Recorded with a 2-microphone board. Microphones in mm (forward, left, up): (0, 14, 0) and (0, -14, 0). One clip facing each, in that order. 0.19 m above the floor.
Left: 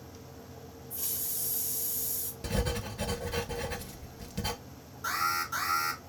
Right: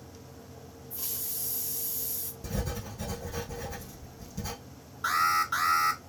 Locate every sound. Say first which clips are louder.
0.9 s a hiss: even; 20° right (ahead or behind), 1.5 m
2.4 s writing: left 3 dB; 70° left (ahead or behind), 1.1 m
5.0 s an alarm: right 5 dB; 45° right (ahead or behind), 2.0 m